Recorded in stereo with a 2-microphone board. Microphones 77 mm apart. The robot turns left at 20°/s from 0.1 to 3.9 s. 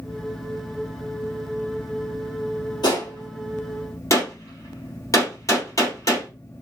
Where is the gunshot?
60° left (ahead or behind), 2 m; by 6.3 s 45° left (ahead or behind), 2 m.